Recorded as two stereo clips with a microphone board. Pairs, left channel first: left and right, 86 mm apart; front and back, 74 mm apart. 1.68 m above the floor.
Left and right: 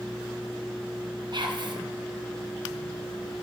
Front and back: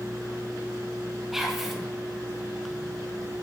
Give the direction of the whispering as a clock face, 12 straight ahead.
3 o'clock.